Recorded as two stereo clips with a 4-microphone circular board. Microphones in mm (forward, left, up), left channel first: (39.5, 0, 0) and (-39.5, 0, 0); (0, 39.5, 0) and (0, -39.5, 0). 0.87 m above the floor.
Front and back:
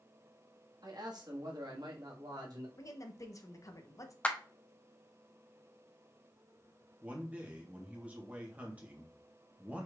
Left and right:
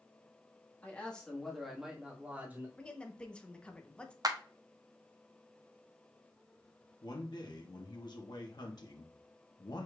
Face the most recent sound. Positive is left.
turn(degrees=110)